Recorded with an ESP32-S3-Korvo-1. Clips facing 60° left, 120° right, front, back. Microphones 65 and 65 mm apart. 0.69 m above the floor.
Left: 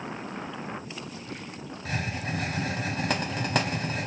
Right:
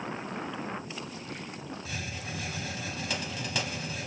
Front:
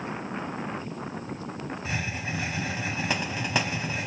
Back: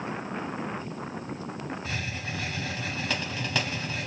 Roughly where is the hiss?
Ahead left.